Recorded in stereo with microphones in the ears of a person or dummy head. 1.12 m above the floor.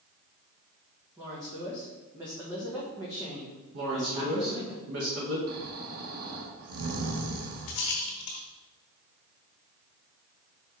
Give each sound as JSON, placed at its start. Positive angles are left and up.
{"t": 1.2, "sound": "a woman speaking", "side_deg": -15, "distance_m": 1.2}
{"t": 3.7, "sound": "a woman speaking", "side_deg": -75, "distance_m": 2.0}
{"t": 5.5, "sound": "snoring", "side_deg": -55, "distance_m": 1.2}
{"t": 7.7, "sound": "a rattle", "side_deg": 45, "distance_m": 1.8}